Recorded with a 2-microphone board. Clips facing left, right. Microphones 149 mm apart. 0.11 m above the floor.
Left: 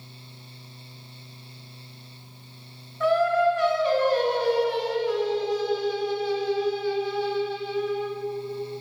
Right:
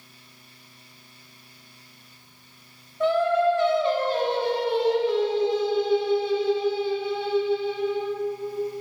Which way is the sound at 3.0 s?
25° right (ahead or behind).